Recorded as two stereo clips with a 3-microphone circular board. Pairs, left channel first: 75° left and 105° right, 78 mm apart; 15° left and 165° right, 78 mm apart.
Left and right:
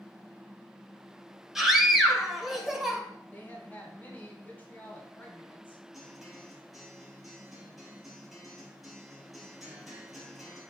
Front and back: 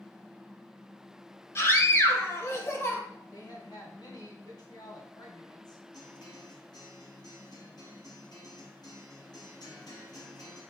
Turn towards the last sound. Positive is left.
turn(degrees=-15)